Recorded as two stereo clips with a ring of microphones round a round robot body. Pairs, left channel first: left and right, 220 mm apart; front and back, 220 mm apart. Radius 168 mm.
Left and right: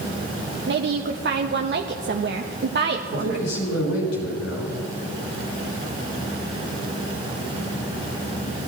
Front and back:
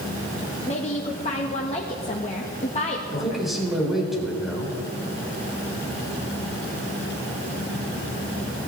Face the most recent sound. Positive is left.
turn(degrees=90)